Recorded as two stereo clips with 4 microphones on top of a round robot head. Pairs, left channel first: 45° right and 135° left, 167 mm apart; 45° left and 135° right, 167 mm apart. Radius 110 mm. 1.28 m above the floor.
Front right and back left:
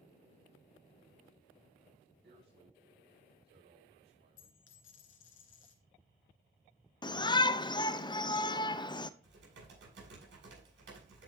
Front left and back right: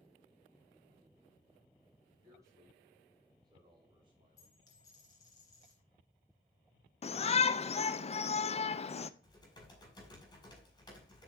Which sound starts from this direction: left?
Typing on a keyboard, at 9.2 s.